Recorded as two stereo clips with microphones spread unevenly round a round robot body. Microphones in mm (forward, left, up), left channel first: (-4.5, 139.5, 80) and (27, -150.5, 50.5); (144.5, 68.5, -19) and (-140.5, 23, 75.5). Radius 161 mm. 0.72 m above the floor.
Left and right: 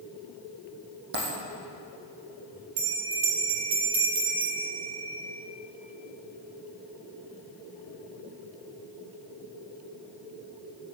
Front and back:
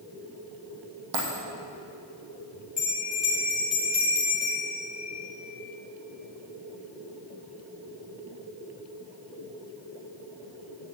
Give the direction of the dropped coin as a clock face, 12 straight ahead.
5 o'clock.